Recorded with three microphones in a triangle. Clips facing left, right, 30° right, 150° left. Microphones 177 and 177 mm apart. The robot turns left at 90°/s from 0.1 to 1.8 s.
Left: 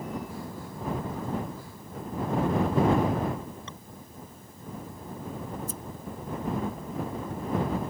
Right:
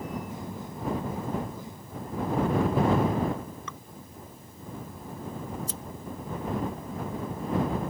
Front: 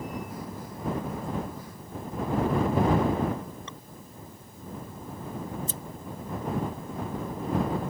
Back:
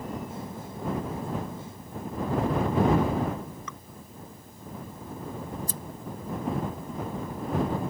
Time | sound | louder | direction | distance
3.7 | dripping | right 2 dB, back 1 dB | 30° left | ?
5.5 | scissors | even, even | 95° right | ?